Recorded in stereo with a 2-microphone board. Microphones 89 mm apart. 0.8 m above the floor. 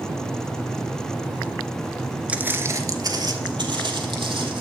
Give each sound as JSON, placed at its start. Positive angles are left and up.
{"t": 2.3, "sound": "footsteps", "side_deg": -15, "distance_m": 0.7}